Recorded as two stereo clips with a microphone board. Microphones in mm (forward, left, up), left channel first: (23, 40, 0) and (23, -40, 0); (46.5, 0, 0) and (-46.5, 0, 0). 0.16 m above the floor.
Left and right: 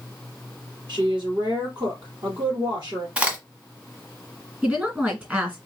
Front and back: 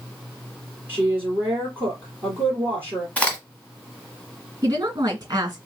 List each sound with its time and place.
0.9 s a woman speaking: 110° right, 3 m
3.2 s a crack: 45° right, 1.5 m
4.6 s a woman speaking: 155° right, 1.8 m